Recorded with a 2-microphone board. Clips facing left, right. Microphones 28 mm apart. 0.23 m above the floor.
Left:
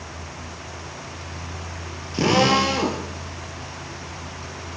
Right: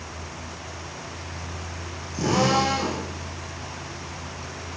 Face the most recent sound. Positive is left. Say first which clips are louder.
# left 4 dB
turn(degrees=55)  # may be behind; listen again after turning